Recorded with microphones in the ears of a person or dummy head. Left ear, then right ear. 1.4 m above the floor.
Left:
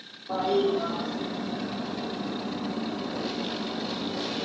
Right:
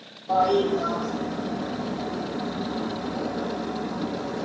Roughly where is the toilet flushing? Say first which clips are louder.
Right 4 dB; right.